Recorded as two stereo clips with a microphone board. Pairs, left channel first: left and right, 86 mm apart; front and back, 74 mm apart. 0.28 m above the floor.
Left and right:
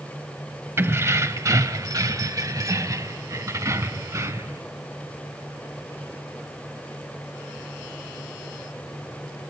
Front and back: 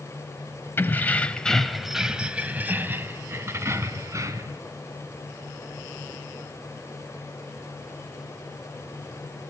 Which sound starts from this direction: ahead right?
Keys jangling, at 0.8 s.